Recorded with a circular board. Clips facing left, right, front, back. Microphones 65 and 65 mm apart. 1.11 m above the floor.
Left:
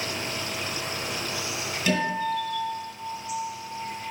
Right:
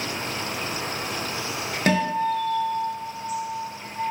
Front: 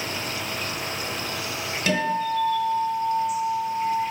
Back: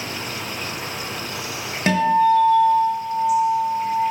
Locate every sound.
0.0 s an insect: 95° right, 0.7 m
1.9 s a guitar: 125° right, 2 m